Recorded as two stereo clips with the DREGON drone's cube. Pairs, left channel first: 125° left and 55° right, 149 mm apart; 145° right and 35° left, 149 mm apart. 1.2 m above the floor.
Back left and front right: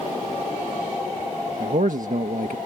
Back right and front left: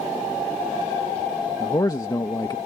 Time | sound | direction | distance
1.6 | a man speaking | 85° right | ?